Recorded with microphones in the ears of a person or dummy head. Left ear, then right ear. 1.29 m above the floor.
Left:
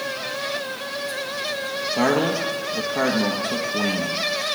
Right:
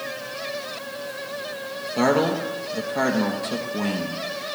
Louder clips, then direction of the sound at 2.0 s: Right 1 dB; 15° right (ahead or behind).